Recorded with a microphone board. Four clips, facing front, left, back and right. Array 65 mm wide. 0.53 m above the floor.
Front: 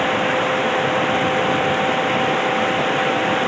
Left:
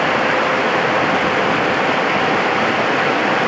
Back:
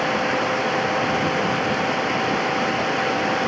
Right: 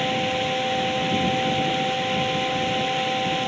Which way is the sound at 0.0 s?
75° left.